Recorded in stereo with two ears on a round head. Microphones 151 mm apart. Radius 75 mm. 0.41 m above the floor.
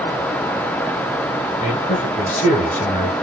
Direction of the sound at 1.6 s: 45° left (ahead or behind).